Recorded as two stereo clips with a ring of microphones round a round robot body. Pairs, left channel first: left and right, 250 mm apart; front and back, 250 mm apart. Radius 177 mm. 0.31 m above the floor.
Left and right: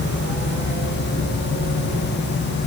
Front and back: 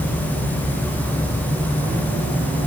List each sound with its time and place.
Only background noise.